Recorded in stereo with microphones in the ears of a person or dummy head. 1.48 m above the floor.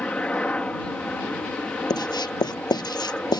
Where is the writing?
20° left (ahead or behind).